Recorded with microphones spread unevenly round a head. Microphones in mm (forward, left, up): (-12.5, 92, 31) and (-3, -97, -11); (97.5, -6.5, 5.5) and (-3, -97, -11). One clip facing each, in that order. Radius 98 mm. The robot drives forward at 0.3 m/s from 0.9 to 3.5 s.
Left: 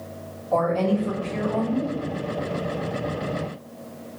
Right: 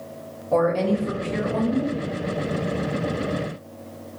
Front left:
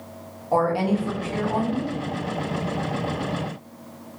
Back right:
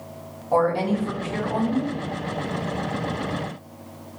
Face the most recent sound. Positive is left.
turn(degrees=-75)